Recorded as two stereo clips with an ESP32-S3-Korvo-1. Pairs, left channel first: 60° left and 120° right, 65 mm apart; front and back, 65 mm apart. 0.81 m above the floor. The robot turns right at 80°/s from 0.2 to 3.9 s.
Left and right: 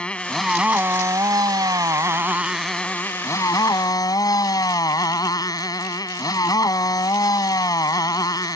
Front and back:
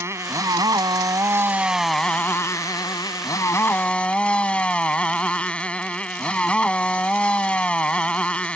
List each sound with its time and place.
0.0 s a motorcycle: 135° left; by 8.6 s 70° left